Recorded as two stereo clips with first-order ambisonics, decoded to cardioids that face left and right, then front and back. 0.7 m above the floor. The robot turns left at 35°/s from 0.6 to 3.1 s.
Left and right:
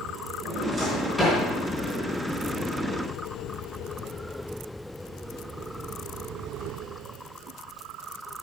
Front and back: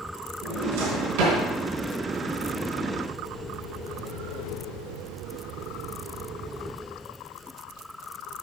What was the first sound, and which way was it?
A drawer, 160° right.